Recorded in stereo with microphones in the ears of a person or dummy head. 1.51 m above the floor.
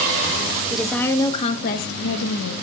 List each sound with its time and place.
0.7 s a woman speaking: 5° right (ahead or behind), 1.0 m; by 2.5 s 80° left, 1.2 m